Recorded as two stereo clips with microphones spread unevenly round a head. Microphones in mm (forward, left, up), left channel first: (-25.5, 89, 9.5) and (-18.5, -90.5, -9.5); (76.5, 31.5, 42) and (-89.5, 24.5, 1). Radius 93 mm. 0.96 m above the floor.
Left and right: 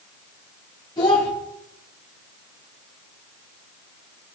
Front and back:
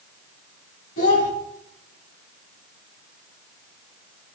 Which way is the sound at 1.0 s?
25° left.